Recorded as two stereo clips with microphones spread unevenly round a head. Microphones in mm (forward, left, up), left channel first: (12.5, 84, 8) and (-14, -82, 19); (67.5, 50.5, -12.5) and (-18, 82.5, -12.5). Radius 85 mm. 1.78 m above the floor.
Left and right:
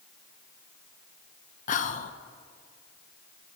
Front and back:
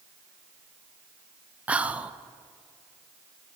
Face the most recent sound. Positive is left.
turn(degrees=90)